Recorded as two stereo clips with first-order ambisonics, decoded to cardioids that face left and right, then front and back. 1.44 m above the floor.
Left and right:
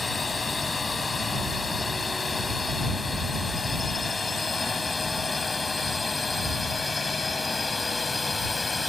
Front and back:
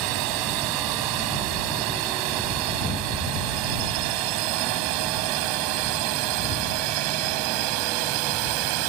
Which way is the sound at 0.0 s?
170° left.